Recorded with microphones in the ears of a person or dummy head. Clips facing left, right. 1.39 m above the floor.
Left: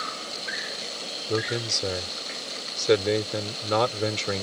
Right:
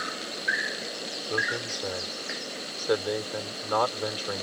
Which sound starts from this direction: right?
An insect, at 0.0 s.